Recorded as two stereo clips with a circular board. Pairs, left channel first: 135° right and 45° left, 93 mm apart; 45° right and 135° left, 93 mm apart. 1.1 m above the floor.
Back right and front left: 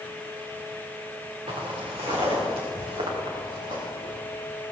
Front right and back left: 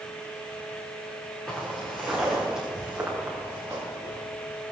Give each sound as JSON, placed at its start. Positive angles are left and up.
{"t": 1.5, "sound": "footsteps", "azimuth_deg": 40, "distance_m": 4.0}